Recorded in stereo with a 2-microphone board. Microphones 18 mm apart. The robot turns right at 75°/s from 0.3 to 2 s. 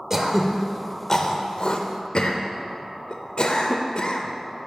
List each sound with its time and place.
0.1 s throat clearing: 20° right (ahead or behind), 0.7 m; by 4.7 s 50° left (ahead or behind), 0.7 m